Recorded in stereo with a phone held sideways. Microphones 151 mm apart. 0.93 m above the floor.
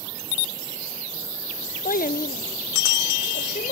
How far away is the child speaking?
About 0.6 m.